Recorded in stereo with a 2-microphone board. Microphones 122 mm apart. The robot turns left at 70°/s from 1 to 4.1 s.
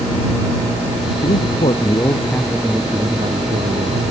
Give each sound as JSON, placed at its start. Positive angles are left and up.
{"t": 1.2, "sound": "a man speaking", "azimuth_deg": 85}